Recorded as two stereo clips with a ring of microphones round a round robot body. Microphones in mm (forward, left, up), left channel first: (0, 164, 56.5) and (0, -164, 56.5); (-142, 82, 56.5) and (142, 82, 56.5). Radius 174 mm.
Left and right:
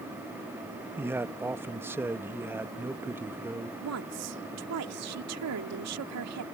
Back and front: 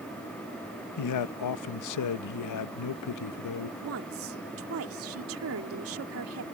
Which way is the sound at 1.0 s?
175° right.